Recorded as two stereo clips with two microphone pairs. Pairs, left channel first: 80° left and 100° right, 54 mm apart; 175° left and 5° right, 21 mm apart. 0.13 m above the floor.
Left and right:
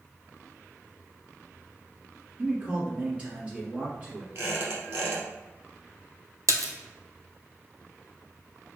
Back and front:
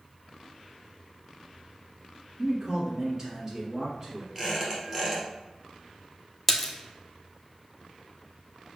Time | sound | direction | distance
2.4 | a man speaking | 60° right | 1.4 m
4.3 | a squeak | 80° right | 2 m
6.5 | a splash | 105° right | 0.7 m